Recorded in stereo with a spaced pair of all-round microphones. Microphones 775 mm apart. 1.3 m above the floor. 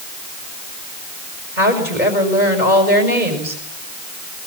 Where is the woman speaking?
70° right (ahead or behind), 5.5 m.